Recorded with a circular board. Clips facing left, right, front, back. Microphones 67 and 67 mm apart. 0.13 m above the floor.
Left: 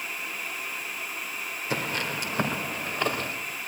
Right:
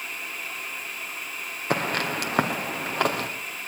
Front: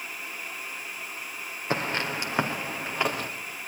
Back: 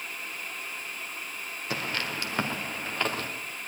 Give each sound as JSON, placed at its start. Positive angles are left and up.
{"t": 1.7, "sound": "footsteps", "azimuth_deg": -60, "distance_m": 2.5}